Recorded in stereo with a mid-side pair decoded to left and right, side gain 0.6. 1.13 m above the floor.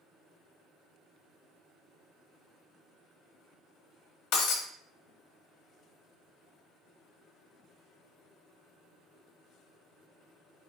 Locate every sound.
4.3 s breaking glass: 65° left, 1.1 m